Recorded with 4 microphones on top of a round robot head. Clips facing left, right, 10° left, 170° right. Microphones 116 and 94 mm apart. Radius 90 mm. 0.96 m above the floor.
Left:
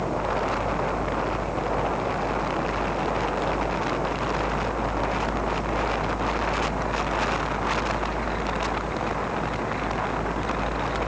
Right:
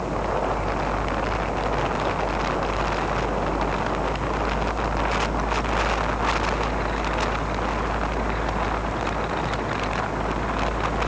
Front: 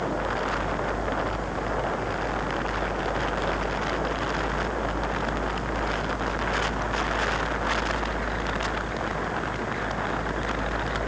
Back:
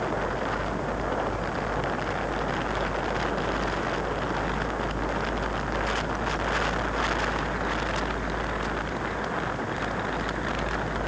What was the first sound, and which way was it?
Only background noise.